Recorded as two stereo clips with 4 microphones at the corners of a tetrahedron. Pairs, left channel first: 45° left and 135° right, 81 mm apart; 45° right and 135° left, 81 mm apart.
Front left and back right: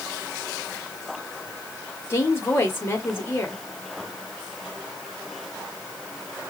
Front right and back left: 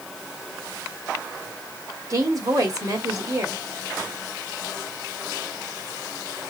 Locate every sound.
2.1 s a woman speaking: 100° left, 1.9 m